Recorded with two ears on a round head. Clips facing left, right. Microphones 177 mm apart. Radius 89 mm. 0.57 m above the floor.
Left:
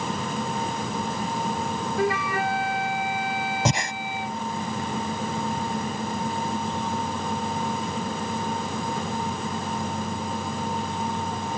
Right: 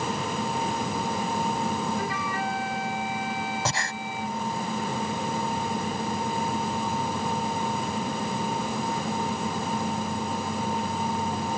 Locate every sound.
2.0 s a flute: 55° left (ahead or behind)
3.6 s breathing: 20° left (ahead or behind)